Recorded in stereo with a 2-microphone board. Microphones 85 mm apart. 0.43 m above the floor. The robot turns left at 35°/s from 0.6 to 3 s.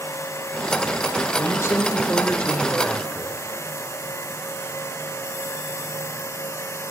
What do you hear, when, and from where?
1.4 s a man speaking: 55° left, 1.1 m; by 3.4 s straight ahead, 1.1 m